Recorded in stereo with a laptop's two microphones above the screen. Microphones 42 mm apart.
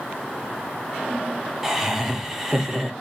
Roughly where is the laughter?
Centre.